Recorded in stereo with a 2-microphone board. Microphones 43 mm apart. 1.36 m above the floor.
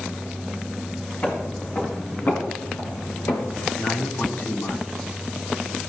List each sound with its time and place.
1.2 s footsteps: 40° left (ahead or behind), 5 m; by 3.7 s 60° left (ahead or behind), 3 m
3.8 s a man speaking: 50° left (ahead or behind), 3 m